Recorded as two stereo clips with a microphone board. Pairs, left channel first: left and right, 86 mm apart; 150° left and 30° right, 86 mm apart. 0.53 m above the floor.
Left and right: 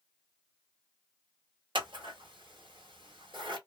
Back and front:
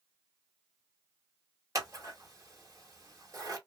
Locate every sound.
1.8 s scissors: 80° right, 1.2 m